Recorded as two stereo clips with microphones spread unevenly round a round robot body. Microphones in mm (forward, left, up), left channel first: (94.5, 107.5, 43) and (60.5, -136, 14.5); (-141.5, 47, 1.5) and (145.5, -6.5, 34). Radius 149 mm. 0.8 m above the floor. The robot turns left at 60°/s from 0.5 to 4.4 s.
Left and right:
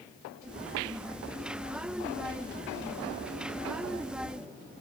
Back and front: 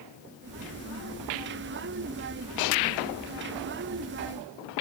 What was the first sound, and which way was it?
Only background noise.